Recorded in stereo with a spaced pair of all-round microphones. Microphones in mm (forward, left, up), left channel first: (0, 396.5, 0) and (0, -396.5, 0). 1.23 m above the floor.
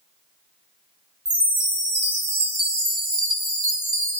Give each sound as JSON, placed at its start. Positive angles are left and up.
{"t": 1.2, "sound": "a chime", "side_deg": -40, "distance_m": 0.6}